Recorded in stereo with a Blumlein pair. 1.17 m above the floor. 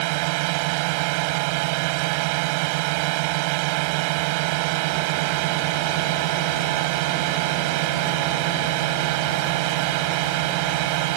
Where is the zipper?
No zipper in this recording.